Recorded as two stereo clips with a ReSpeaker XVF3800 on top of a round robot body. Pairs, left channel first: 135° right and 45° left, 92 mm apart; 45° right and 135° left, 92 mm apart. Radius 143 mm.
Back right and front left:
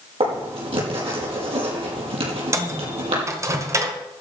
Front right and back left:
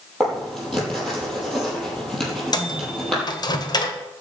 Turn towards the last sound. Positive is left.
turn(degrees=-10)